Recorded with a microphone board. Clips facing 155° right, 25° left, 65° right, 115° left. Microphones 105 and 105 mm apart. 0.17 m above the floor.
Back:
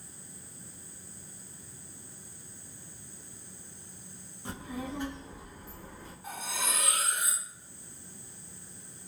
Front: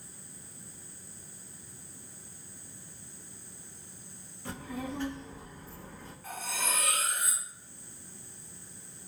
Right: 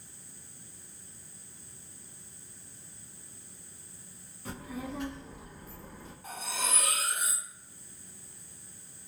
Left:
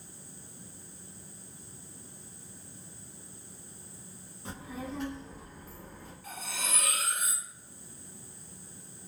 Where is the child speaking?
155° left, 1.2 m; by 6.1 s 130° left, 1.7 m.